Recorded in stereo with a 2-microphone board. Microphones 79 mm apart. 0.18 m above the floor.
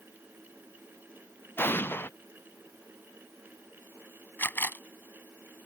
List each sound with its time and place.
1.6 s an explosion: 25° left (ahead or behind)
4.4 s a camera shutter: 25° left (ahead or behind)